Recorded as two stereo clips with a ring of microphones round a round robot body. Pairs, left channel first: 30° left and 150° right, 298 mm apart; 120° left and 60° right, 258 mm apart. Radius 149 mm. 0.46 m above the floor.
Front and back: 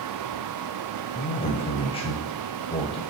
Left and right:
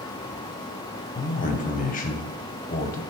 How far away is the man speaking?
About 0.8 m.